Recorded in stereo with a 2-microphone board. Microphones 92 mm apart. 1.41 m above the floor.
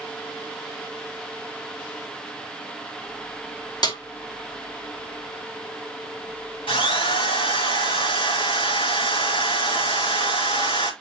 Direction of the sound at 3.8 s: 55° left (ahead or behind).